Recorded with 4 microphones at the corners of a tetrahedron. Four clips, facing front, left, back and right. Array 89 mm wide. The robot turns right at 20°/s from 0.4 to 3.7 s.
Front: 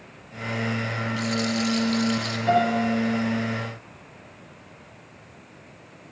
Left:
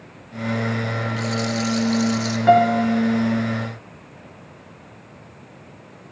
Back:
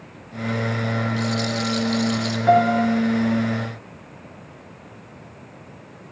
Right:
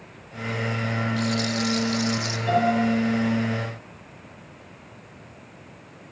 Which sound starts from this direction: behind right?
A rattle, at 1.2 s.